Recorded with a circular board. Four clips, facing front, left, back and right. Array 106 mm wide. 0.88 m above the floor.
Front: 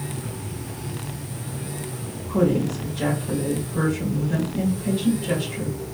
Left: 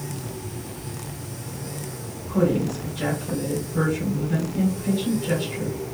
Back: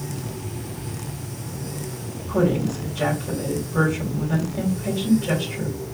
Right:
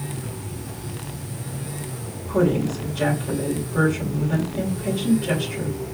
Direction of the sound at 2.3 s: 130° right.